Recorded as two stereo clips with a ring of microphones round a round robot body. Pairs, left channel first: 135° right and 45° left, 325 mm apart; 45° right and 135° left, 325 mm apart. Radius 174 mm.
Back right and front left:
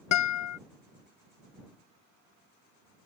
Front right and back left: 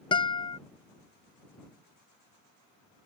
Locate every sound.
0.1 s a guitar: 115° right